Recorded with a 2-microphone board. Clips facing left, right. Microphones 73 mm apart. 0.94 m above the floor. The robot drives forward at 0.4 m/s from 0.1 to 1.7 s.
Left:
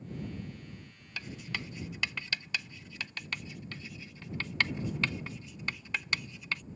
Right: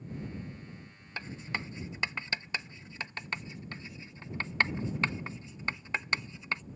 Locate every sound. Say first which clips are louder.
1.2 s writing: right 2 dB; 30° right (ahead or behind)